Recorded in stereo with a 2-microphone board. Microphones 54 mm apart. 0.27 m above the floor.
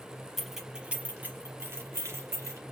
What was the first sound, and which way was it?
Keys jangling, centre (ahead or behind).